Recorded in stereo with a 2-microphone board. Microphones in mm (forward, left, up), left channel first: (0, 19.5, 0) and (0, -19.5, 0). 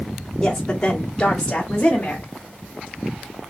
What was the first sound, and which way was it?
A woman speaking, 15° left (ahead or behind).